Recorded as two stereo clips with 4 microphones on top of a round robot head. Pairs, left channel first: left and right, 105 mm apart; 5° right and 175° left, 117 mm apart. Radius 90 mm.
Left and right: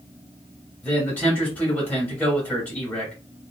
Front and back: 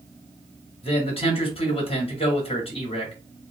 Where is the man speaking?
15° left, 2 m.